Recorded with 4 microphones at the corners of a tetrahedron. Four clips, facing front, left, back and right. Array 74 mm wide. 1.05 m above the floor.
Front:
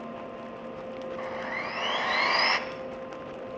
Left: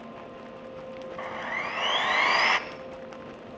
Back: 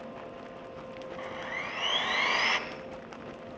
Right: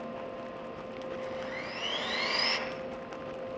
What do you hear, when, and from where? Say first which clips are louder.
1.2 s sawing: left 8 dB, front 2 dB; 65° left, 2.0 m